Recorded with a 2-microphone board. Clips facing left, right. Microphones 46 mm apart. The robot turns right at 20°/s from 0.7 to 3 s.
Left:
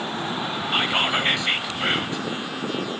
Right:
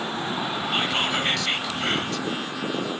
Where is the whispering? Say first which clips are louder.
Left 3 dB; 20° left (ahead or behind), 1.1 m; by 2.3 s 15° left (ahead or behind), 1.1 m.